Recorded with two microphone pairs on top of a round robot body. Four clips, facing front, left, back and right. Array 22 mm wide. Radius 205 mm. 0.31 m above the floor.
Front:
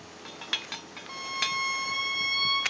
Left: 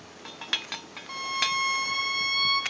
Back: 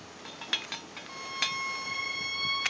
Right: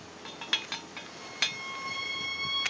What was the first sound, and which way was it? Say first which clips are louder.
A violin: left 6 dB, front 2 dB; 75° left.